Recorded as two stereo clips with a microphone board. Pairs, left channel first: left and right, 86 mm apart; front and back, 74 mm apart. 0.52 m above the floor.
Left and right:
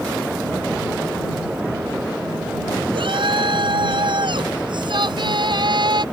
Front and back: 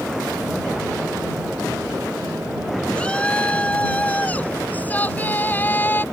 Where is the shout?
75° right; by 6.0 s 65° right.